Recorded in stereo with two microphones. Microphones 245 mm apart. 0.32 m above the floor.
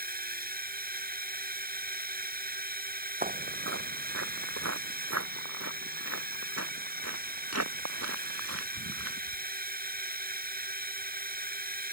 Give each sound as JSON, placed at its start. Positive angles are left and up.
{"t": 0.0, "sound": "a drone", "side_deg": -40}
{"t": 3.2, "sound": "footsteps", "side_deg": -30}